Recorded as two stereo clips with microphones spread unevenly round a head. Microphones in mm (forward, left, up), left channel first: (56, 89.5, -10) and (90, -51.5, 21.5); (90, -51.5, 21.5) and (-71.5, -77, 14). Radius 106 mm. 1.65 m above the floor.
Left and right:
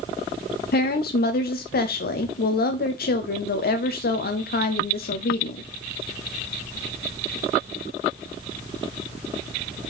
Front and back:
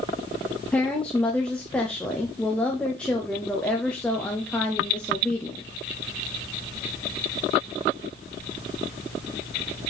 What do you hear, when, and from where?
0.7 s a woman speaking: 95° left, 0.8 m